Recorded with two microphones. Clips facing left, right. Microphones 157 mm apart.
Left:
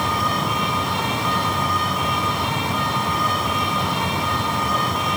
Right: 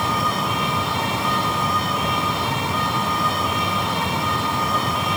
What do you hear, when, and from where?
Only background noise.